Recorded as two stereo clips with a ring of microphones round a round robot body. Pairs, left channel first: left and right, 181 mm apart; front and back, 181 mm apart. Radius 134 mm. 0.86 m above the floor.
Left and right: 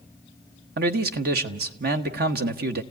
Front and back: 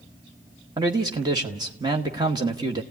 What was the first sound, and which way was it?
A man speaking, 110° right.